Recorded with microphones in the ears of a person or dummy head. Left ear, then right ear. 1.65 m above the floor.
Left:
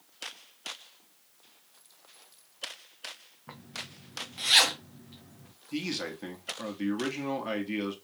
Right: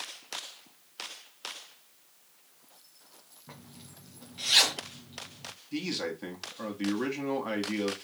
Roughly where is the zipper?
Left.